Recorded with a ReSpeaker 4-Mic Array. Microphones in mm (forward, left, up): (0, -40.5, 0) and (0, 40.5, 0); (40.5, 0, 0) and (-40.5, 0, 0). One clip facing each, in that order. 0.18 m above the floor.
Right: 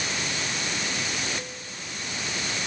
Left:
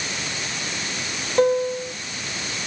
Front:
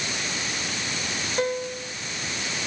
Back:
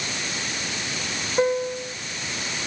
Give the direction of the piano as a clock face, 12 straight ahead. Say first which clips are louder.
Left 20 dB, back 6 dB; 8 o'clock.